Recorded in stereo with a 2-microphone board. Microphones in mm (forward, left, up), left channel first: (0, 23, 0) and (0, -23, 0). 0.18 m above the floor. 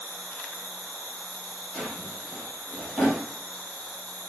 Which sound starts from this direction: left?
An insect, at 0.0 s.